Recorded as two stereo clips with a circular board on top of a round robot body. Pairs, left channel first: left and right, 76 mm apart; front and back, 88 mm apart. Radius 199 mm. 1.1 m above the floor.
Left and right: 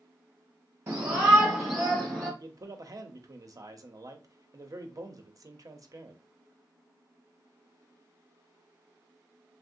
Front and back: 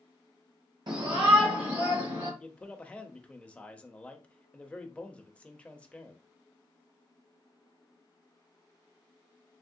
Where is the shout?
145° right, 0.6 m; by 2.3 s 175° left, 1.6 m.